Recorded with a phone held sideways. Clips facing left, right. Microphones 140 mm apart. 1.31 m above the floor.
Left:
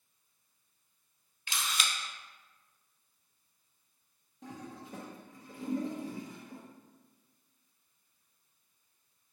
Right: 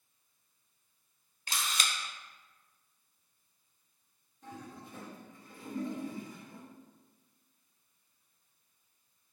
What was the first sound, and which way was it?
A camera shutter, 40° right (ahead or behind).